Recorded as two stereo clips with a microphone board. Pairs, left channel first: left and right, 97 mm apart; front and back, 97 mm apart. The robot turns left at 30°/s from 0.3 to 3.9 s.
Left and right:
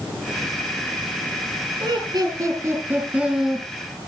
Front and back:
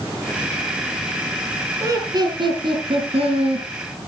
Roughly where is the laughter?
Behind right.